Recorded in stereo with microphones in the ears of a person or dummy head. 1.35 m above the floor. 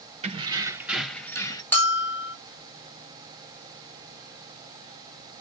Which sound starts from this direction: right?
Keys jangling, at 0.2 s.